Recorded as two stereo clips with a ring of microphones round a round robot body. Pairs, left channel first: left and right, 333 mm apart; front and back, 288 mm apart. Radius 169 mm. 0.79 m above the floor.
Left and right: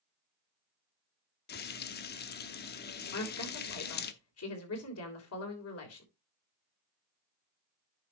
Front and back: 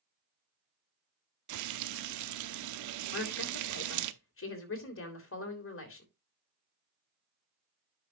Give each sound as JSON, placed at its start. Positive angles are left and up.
{"t": 1.5, "sound": "frying", "azimuth_deg": 155, "distance_m": 0.8}
{"t": 3.1, "sound": "a woman speaking", "azimuth_deg": 45, "distance_m": 3.5}